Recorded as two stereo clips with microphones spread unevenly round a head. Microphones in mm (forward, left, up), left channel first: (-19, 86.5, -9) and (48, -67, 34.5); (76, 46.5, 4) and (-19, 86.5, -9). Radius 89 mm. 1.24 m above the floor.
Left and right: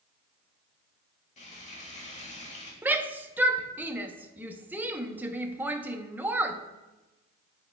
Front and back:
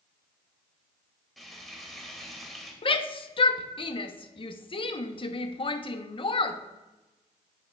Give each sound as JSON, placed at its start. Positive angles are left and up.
{"t": 1.4, "sound": "frying", "azimuth_deg": 70, "distance_m": 2.5}
{"t": 2.8, "sound": "a shout", "azimuth_deg": 15, "distance_m": 0.9}